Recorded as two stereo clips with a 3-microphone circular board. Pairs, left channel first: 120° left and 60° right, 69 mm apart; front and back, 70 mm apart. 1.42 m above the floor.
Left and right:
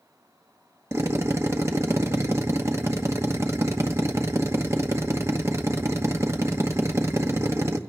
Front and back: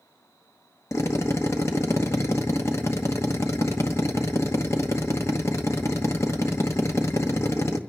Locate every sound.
0.9 s a drill: 30° right, 1.0 m